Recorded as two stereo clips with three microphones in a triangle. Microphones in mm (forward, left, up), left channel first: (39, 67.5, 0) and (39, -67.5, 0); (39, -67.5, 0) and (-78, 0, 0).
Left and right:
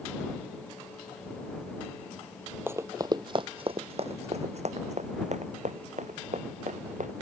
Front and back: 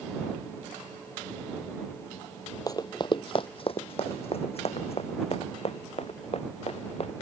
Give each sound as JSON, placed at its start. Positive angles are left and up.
{"t": 2.7, "sound": "running footsteps", "azimuth_deg": -35}